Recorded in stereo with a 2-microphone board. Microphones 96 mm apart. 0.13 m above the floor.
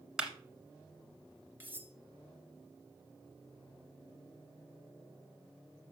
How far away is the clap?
About 1.6 m.